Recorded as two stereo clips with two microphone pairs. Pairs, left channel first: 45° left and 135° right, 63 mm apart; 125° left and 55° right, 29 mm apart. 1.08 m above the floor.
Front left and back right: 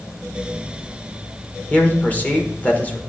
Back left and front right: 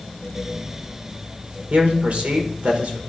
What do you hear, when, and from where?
1.7 s a man speaking: 20° right, 1.3 m